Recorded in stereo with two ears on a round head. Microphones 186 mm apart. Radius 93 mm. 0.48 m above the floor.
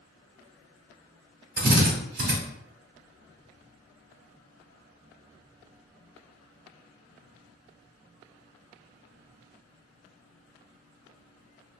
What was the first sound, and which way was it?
A drill, 50° right (ahead or behind).